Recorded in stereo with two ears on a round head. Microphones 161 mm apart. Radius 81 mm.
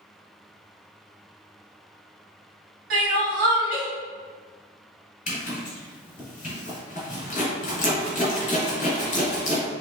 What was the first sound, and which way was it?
Crying, 50° right (ahead or behind).